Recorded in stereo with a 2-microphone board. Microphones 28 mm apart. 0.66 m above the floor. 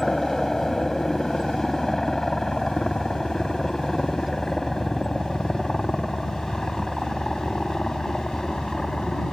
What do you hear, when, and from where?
0.0 s a helicopter: 10° left (ahead or behind); by 9.3 s 15° left (ahead or behind)